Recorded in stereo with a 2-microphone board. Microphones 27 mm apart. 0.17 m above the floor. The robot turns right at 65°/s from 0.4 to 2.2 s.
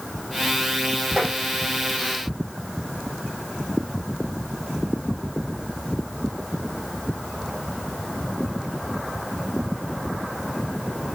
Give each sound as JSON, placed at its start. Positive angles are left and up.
{"t": 1.2, "sound": "tapping", "side_deg": 5, "distance_m": 6.0}